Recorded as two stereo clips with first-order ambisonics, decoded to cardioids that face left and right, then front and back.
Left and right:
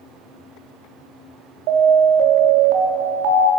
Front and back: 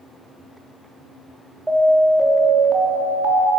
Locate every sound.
1.7 s an alarm: 95° right, 3.5 m